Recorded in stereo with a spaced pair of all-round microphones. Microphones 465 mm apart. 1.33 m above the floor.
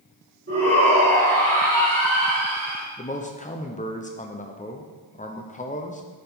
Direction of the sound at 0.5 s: 30° right (ahead or behind).